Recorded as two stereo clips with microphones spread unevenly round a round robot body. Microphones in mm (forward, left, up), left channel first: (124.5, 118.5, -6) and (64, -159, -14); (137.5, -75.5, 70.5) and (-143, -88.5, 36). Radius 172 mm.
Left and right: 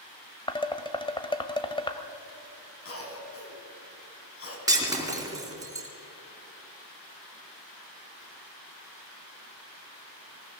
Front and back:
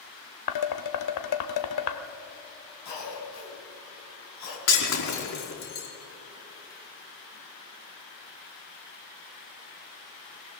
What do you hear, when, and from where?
0.5 s dishes clattering: 5° left, 1.5 m
2.9 s a cough: 40° left, 5 m
4.7 s breaking glass: 25° right, 4.5 m